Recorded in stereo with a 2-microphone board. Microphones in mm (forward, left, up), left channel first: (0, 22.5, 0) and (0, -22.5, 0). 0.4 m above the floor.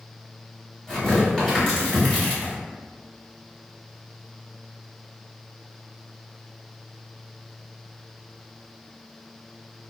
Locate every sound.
0.9 s tearing paper: 10° left (ahead or behind), 1.6 m